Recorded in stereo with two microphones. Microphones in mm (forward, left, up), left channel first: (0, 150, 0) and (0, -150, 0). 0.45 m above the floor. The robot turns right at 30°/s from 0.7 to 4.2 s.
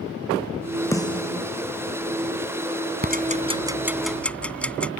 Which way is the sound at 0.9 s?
10° left (ahead or behind).